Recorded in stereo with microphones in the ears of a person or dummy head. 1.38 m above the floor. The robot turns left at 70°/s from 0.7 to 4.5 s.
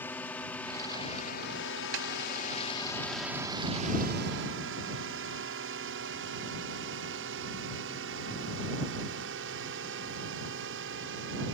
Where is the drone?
5° left (ahead or behind); by 11.5 s 65° right (ahead or behind).